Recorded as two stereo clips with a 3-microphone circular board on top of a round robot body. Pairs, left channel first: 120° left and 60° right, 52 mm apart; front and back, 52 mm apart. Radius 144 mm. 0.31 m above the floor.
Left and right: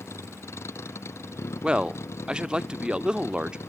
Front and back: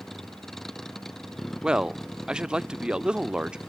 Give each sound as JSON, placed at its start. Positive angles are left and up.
{"t": 0.0, "sound": "a vehicle", "azimuth_deg": 85}
{"t": 1.6, "sound": "a man speaking", "azimuth_deg": -120}